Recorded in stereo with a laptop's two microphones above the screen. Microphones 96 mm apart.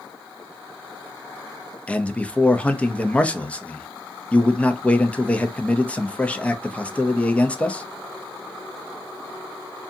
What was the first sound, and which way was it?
A man speaking, 15° left (ahead or behind).